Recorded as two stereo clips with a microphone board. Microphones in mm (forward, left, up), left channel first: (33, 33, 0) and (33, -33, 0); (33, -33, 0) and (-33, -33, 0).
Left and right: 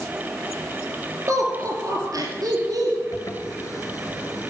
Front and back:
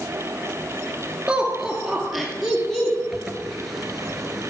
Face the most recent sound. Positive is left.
turn(degrees=90)